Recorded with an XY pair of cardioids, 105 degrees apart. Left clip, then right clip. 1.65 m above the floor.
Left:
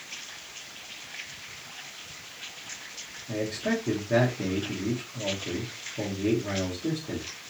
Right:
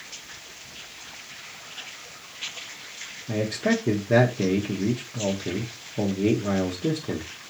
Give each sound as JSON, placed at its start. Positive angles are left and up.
{"t": 3.3, "sound": "a man speaking", "azimuth_deg": -50, "distance_m": 1.0}